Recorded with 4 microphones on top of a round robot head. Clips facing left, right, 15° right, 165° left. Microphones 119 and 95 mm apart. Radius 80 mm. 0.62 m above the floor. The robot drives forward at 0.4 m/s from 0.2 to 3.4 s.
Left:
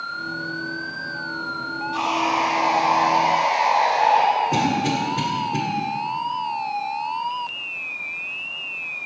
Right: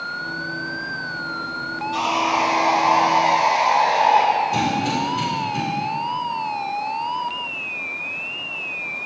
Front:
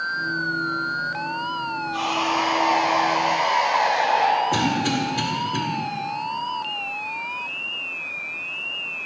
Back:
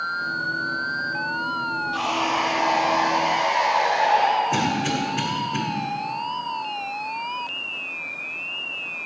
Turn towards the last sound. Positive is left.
turn(degrees=60)